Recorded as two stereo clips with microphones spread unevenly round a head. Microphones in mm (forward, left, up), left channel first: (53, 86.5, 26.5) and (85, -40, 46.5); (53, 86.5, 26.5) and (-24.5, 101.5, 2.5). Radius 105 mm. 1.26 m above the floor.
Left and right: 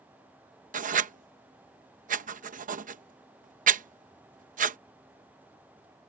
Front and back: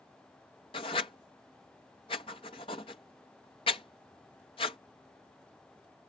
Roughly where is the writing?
Ahead right.